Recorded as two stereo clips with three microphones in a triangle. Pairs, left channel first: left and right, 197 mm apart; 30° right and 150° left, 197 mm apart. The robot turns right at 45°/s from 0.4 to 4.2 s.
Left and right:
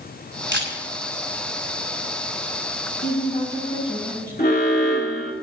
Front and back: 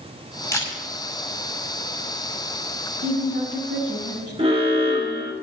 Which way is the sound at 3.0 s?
120° left.